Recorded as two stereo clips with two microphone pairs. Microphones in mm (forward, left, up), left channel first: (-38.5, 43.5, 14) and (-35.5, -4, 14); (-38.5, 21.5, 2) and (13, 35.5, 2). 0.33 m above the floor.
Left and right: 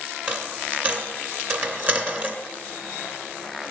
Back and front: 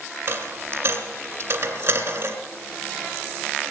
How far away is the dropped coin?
About 2 m.